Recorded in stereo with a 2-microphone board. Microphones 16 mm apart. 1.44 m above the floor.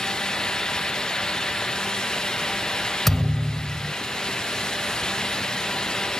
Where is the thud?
15° left (ahead or behind).